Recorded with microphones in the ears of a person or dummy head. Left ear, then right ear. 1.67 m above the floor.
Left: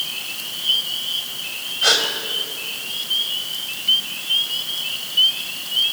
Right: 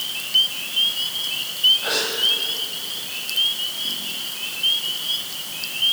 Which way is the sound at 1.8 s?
75° left (ahead or behind).